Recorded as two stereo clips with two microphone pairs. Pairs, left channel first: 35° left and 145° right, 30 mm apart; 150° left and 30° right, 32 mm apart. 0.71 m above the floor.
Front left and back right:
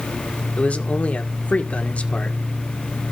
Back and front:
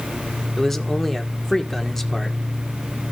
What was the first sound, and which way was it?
A man speaking, 70° left.